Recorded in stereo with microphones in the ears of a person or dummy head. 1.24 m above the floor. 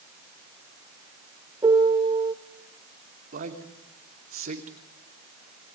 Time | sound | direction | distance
1.6 | a piano | 20° right (ahead or behind) | 1.2 m
3.3 | a man speaking | 50° right (ahead or behind) | 2.5 m